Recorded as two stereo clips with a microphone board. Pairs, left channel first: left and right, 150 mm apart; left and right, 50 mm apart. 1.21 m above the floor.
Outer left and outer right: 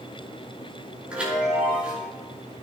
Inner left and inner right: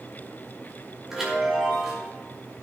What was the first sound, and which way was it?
A chime, 5° right (ahead or behind).